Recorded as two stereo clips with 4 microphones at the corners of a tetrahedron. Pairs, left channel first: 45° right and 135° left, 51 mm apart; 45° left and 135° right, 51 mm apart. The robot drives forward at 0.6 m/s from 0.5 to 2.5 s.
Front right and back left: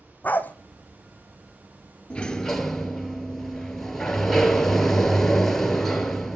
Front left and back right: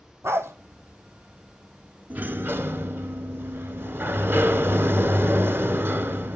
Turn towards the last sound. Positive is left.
turn(degrees=-120)